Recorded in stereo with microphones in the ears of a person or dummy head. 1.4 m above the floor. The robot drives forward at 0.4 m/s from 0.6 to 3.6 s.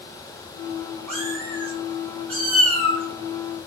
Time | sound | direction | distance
1.1 | a cat meowing | 10° left (ahead or behind) | 1.1 m